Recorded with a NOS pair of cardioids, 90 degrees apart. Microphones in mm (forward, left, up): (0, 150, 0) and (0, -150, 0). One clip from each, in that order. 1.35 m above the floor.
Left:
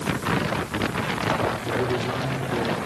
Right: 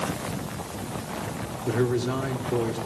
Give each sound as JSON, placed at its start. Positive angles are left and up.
{"t": 1.6, "sound": "a man speaking", "azimuth_deg": -30, "distance_m": 4.5}